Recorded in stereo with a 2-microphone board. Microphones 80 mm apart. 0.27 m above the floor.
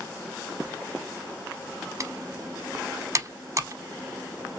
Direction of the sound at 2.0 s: 35° right (ahead or behind).